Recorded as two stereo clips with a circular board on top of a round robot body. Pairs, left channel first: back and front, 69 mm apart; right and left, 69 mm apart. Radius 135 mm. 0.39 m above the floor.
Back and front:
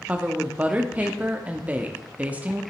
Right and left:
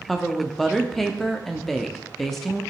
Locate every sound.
0.1 s a woman speaking: 10° right, 1.0 m